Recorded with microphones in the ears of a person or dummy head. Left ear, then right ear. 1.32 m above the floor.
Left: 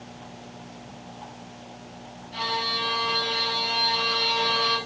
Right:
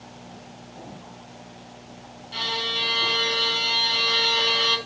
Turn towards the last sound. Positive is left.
turn(degrees=-60)  # may be behind; listen again after turning